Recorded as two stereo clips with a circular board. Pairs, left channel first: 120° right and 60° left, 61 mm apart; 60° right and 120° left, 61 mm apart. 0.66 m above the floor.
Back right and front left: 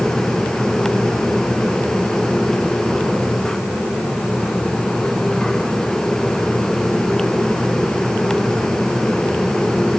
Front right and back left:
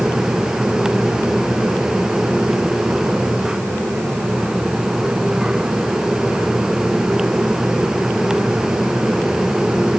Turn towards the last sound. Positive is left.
No sound to turn to.